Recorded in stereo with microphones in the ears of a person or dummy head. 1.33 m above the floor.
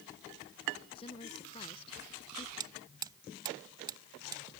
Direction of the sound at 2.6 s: 25° right (ahead or behind).